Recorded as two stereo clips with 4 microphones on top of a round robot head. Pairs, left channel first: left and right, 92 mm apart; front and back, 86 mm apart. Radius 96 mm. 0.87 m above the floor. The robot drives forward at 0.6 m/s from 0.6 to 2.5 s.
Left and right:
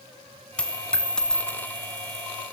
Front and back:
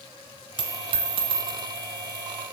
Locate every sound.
0.6 s a dropped coin: 165° left, 1.0 m; by 2.2 s 175° left, 1.9 m